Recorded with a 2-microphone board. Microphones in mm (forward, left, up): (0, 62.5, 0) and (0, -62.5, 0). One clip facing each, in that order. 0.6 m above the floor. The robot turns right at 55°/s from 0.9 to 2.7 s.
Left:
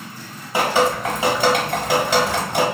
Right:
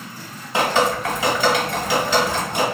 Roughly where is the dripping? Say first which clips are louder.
Left 1 dB; centre.